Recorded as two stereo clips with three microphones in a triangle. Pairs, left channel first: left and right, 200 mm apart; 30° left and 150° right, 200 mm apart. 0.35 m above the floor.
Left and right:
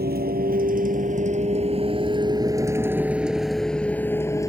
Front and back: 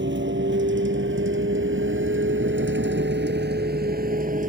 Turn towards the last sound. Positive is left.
turn(degrees=165)